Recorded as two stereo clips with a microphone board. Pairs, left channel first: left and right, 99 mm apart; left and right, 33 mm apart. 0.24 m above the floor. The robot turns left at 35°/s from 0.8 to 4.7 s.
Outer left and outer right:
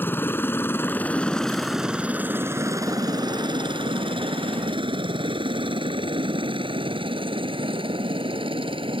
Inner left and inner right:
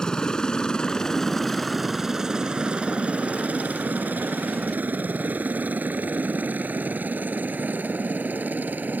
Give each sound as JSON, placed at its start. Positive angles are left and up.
{"t": 0.0, "sound": "a helicopter", "side_deg": 25}